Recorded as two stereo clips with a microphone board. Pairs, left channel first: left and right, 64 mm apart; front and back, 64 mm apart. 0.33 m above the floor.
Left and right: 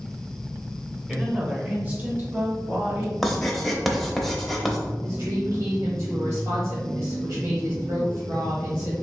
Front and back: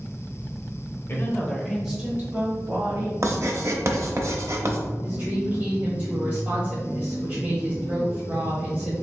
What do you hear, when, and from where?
1.1 s a woman speaking: 15° right, 1.1 m; by 3.1 s 150° right, 1.9 m
3.2 s writing: 175° left, 0.8 m
5.0 s a woman speaking: 125° right, 1.3 m